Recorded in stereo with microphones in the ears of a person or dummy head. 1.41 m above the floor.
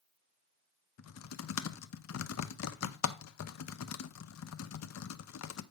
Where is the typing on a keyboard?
80° left, 0.6 m.